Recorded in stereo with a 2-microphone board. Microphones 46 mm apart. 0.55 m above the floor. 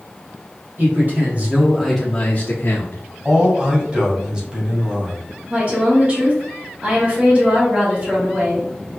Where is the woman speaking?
35° right (ahead or behind), 1.7 m.